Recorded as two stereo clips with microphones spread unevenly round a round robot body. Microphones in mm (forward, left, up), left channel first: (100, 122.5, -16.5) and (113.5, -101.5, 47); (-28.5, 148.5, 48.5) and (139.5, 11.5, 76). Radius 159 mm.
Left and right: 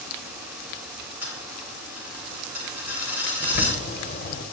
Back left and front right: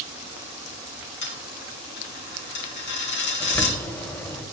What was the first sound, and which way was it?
A dropped coin, 175° right.